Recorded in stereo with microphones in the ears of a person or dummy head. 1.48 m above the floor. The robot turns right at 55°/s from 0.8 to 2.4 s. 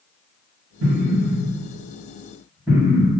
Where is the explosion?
80° right, 1.6 m; by 3.1 s 10° right (ahead or behind), 1.6 m.